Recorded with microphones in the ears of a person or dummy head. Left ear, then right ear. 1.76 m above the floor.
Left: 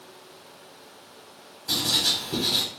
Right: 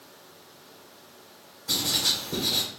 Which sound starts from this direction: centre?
Writing, at 1.7 s.